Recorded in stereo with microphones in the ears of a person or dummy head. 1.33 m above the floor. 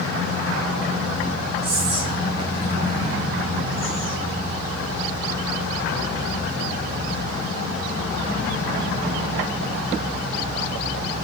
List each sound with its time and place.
1.6 s whispering: 30° right (ahead or behind), 1.2 m